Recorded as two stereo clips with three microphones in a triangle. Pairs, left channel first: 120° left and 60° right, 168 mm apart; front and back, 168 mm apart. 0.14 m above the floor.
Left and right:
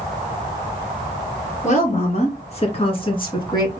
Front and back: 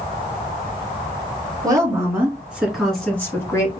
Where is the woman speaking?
120° left, 2.5 m; by 3.8 s 60° left, 2 m.